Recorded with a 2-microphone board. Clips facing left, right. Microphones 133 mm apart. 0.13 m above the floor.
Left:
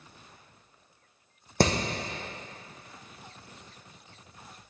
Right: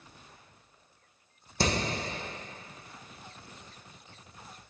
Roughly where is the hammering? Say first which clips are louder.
Left 5 dB; left.